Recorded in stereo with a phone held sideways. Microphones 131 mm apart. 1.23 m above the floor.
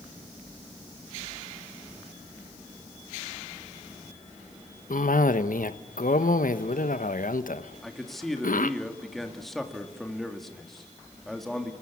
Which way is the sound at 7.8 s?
Centre (ahead or behind).